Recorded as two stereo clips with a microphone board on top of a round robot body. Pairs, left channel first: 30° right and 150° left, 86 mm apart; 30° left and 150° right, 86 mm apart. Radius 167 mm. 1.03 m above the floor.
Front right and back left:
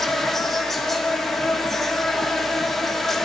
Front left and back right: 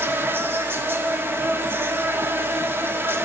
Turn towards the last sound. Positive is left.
turn(degrees=-115)